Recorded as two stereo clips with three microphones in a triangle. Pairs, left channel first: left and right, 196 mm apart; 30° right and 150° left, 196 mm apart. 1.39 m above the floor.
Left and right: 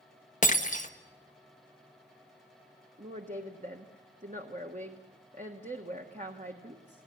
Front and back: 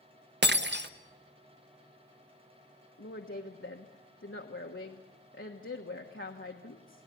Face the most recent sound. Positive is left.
turn(degrees=-40)